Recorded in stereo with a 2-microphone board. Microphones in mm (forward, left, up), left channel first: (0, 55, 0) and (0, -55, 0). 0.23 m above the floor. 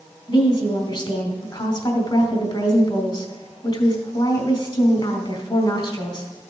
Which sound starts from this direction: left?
A woman speaking, at 0.3 s.